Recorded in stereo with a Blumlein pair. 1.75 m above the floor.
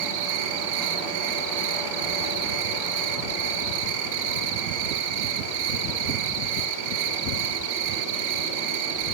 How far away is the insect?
About 1.3 m.